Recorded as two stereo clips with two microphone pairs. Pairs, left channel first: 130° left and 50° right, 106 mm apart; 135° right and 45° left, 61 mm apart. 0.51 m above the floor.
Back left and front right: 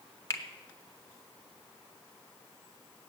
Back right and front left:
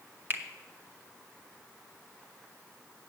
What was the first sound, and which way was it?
A finger snap, 80° left.